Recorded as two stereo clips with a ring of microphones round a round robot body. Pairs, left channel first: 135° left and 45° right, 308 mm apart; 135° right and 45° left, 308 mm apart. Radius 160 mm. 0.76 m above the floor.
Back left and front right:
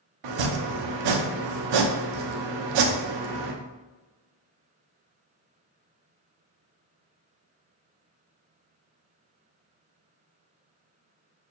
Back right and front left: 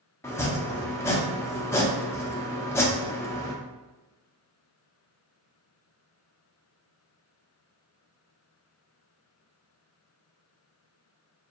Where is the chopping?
55° right, 0.6 m.